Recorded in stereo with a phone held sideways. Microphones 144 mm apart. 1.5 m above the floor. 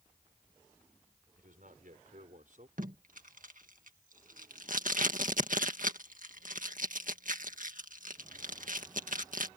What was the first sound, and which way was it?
A man speaking, 65° right (ahead or behind).